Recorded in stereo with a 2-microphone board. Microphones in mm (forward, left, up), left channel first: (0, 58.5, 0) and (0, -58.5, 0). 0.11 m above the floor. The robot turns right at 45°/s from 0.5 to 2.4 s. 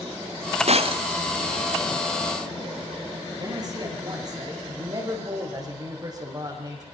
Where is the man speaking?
35° right (ahead or behind), 7.5 m.